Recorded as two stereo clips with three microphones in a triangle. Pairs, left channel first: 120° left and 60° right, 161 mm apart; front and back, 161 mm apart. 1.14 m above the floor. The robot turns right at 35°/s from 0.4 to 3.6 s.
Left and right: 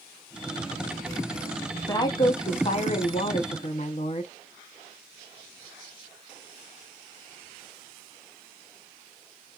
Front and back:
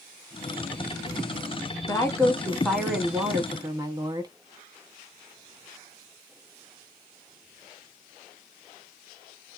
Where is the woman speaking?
65° left, 0.8 m; by 4.3 s 125° left, 0.8 m.